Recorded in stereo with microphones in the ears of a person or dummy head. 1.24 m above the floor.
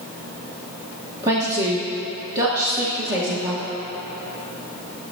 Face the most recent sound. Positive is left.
turn(degrees=-20)  # may be behind; listen again after turning